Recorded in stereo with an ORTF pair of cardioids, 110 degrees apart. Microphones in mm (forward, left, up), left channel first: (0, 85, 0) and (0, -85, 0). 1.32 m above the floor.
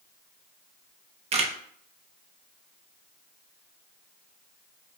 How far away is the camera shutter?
About 0.6 m.